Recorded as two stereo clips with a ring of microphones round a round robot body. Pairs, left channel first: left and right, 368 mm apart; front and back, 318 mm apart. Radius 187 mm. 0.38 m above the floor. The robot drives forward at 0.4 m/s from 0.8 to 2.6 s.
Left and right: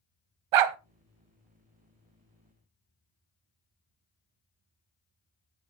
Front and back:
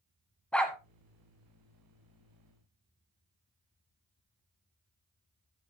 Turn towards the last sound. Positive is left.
turn(degrees=-130)